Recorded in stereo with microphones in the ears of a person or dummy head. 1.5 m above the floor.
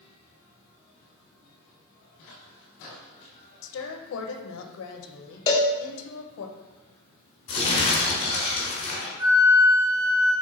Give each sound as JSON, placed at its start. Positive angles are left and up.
{"t": 3.6, "sound": "a woman speaking", "side_deg": 70, "distance_m": 0.7}
{"t": 5.5, "sound": "a cowbell", "side_deg": 25, "distance_m": 0.5}
{"t": 7.5, "sound": "crumpling", "side_deg": 30, "distance_m": 1.4}
{"t": 9.2, "sound": "a flute", "side_deg": -55, "distance_m": 1.9}